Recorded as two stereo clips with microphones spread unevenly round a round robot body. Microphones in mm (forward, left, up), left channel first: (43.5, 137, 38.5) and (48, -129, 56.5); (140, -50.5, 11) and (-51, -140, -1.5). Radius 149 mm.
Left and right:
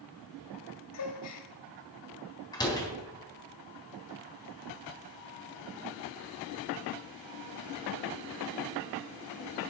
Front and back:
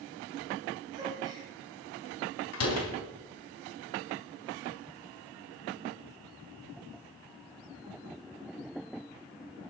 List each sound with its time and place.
0.9 s a gasp: 125° left, 1.9 m
2.5 s a door slam: 15° left, 3.5 m